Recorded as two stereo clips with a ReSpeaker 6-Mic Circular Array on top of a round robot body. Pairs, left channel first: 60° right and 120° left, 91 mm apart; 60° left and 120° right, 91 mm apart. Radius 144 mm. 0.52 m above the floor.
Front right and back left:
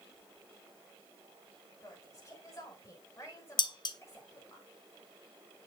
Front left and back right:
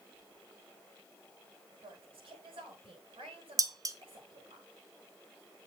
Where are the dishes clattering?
75° right, 1.2 m.